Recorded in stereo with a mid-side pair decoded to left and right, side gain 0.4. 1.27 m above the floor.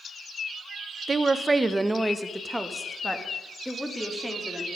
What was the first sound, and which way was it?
A woman speaking, 35° right.